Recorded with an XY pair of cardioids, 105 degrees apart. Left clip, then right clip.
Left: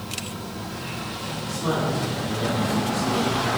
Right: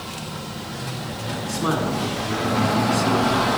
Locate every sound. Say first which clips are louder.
1.4 s a man speaking: right 2 dB; 55° right, 2.0 m